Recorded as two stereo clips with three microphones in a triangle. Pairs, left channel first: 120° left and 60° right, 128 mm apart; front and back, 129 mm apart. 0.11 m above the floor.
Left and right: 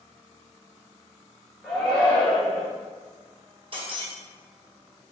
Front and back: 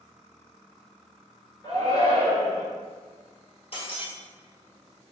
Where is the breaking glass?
25° right, 1.7 m.